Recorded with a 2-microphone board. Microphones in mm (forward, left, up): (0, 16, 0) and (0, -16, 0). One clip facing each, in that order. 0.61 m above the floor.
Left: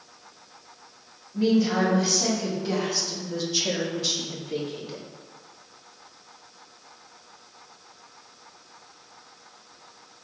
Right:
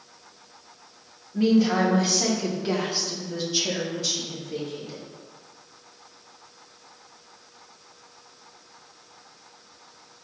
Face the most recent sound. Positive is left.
turn(degrees=35)  # may be behind; listen again after turning